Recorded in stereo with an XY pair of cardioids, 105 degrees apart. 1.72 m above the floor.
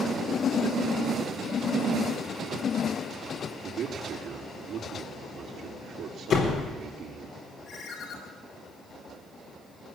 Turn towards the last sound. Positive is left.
turn(degrees=65)